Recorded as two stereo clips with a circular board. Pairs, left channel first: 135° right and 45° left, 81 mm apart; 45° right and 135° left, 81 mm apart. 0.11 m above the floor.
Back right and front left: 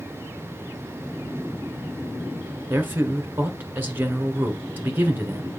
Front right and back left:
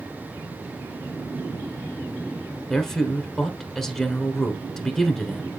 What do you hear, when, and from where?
2.7 s a man speaking: 40° left, 1.1 m